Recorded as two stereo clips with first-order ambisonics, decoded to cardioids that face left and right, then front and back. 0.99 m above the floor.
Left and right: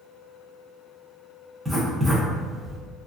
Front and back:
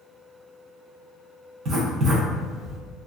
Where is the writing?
165° right, 0.7 m.